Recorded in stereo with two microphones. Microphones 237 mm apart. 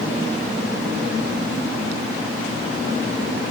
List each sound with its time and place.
Only background noise.